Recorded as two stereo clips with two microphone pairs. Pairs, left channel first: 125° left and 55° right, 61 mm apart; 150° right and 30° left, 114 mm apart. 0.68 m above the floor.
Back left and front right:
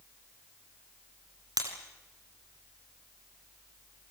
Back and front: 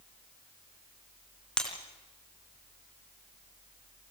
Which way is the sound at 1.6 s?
70° right.